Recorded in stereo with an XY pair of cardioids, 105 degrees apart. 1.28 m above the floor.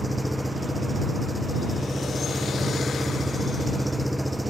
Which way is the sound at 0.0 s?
5° right.